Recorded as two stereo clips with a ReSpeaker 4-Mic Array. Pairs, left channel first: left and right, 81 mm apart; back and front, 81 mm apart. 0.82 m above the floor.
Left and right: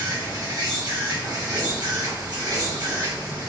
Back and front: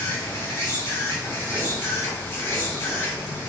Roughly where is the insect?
Behind right.